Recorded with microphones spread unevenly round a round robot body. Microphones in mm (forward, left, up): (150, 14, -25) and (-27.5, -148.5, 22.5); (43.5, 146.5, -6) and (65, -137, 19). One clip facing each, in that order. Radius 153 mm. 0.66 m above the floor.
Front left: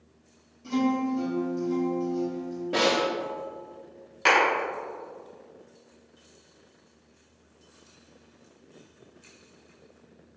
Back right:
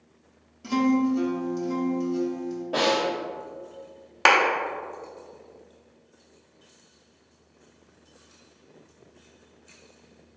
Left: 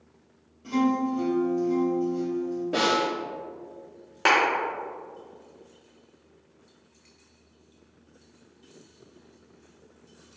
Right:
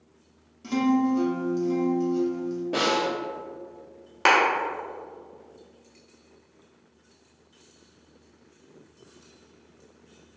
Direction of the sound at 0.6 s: 120° right.